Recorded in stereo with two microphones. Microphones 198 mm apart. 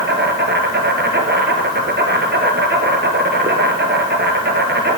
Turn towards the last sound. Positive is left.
turn(degrees=-60)  # may be behind; listen again after turning